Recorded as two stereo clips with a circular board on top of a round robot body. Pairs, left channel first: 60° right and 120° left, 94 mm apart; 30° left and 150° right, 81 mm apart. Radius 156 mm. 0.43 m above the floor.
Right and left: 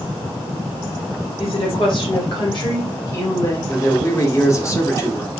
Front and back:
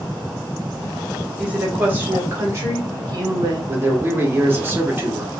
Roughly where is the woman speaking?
Right.